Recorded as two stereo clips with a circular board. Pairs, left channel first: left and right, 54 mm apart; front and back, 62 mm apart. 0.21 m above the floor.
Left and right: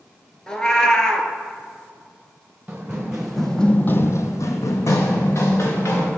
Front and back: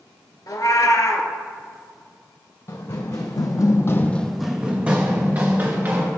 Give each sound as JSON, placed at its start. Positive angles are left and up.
{"t": 0.5, "sound": "a cat meowing", "azimuth_deg": 15, "distance_m": 0.5}
{"t": 2.7, "sound": "running footsteps", "azimuth_deg": -15, "distance_m": 1.2}